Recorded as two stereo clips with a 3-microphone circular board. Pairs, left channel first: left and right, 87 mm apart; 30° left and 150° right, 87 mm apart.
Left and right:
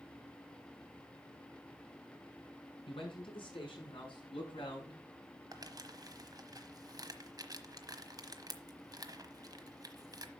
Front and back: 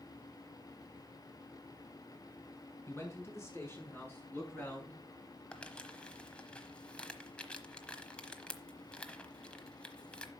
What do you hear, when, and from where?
2.9 s a man speaking: 85° left, 7 m; by 5.4 s 105° left, 7 m
5.5 s crumpling: 50° right, 1.1 m